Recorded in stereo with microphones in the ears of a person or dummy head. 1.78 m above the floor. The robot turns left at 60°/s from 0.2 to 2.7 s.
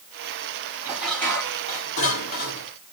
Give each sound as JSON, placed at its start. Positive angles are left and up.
{"t": 0.8, "sound": "dishes clattering", "azimuth_deg": -170, "distance_m": 2.5}